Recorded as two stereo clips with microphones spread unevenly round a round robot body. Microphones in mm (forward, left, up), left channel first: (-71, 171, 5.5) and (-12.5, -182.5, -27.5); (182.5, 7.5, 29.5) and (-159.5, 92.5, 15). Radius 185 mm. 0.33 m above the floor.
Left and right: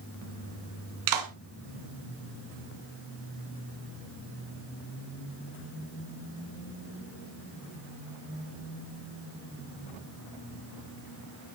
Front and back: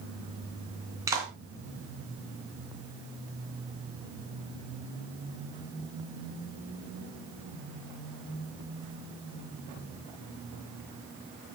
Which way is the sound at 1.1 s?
110° right.